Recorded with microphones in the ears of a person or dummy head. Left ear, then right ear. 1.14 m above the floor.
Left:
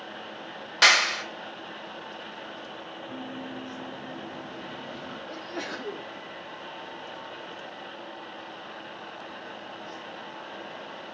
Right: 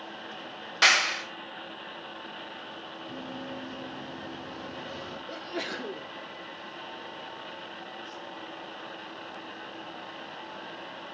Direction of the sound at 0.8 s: 15° left (ahead or behind).